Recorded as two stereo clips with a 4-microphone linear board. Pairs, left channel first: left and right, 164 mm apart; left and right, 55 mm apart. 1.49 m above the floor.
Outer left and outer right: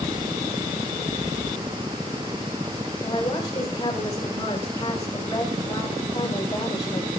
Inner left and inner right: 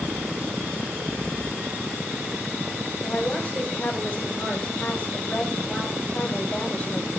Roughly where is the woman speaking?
Left.